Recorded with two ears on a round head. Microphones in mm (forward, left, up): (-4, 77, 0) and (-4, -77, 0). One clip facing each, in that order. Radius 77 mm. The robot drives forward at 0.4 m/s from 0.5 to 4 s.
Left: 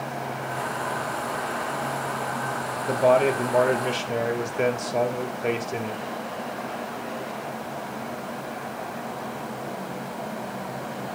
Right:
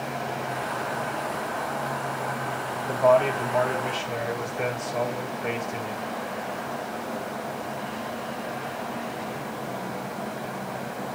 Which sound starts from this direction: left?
A man speaking, at 2.9 s.